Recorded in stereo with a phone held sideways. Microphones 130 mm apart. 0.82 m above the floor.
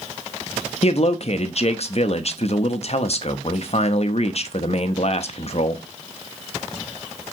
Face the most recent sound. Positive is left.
turn(degrees=55)  # may be behind; listen again after turning